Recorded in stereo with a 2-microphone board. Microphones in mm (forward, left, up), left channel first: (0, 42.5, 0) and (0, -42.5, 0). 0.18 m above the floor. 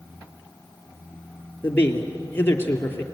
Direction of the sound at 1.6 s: 25° left (ahead or behind).